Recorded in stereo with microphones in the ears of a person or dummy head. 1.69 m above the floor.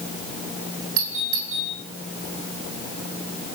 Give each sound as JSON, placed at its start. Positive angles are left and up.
{"t": 1.0, "sound": "a doorbell", "side_deg": -80, "distance_m": 7.5}